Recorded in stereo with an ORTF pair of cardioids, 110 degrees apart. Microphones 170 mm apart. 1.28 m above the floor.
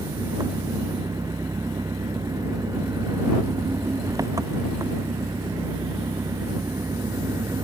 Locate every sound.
0.0 s an engine running: 20° right